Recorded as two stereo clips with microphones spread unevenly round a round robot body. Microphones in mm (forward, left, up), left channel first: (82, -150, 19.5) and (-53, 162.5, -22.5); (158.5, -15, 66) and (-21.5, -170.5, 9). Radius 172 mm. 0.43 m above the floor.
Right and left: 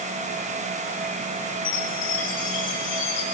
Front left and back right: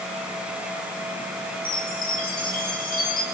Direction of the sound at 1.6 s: 10° right.